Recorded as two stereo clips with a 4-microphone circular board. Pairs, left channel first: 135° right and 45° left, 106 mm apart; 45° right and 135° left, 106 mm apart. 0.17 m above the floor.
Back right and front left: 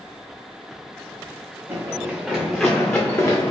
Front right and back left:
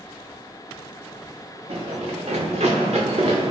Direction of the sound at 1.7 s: 115° left.